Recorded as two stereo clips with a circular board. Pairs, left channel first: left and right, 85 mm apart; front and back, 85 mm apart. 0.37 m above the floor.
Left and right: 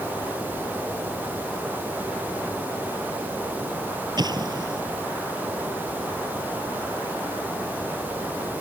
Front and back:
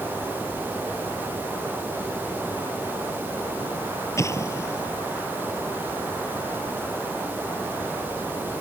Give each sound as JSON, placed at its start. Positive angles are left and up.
{"t": 4.2, "sound": "an explosion", "azimuth_deg": -55}